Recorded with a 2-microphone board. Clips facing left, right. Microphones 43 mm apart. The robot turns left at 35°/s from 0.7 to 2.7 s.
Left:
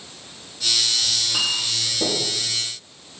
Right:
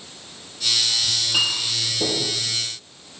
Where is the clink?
45° right (ahead or behind), 3.5 m; by 2.3 s centre (ahead or behind), 3.5 m.